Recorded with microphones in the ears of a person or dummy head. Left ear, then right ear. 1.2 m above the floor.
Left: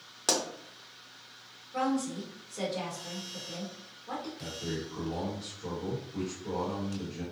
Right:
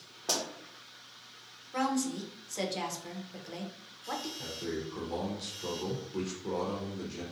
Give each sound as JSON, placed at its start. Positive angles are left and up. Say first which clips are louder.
{"t": 0.3, "sound": "a pop", "louder": "left 3 dB", "side_deg": 40, "distance_m": 0.6}
{"t": 1.7, "sound": "a woman speaking", "louder": "left 1 dB", "side_deg": -70, "distance_m": 0.8}
{"t": 4.4, "sound": "a man speaking", "louder": "even", "side_deg": -80, "distance_m": 0.8}